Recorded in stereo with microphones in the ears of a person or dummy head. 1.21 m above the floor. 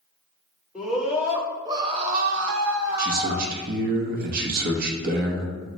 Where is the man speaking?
50° right (ahead or behind), 0.7 m.